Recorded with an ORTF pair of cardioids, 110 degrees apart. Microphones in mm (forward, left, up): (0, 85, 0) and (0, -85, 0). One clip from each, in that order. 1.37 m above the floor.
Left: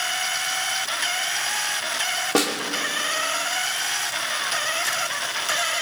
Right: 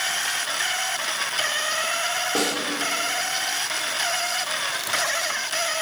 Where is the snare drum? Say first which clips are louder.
Left 4 dB; 45° left, 2 m.